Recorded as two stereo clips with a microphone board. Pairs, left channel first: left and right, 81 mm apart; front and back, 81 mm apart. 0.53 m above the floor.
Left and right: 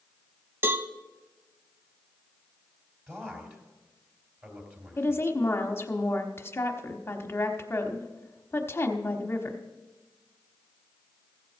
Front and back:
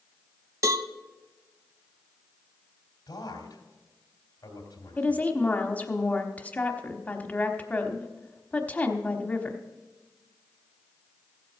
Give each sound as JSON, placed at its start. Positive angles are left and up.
{"t": 0.6, "sound": "a cowbell", "azimuth_deg": -145, "distance_m": 0.6}
{"t": 3.1, "sound": "a man speaking", "azimuth_deg": -30, "distance_m": 2.5}
{"t": 5.0, "sound": "a woman speaking", "azimuth_deg": 55, "distance_m": 1.0}